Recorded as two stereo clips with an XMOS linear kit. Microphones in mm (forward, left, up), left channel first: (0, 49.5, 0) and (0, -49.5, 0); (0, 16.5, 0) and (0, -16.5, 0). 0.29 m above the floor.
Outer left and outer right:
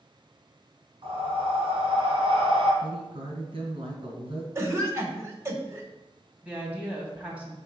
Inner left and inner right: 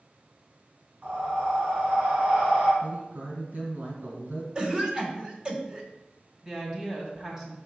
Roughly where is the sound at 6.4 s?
Centre.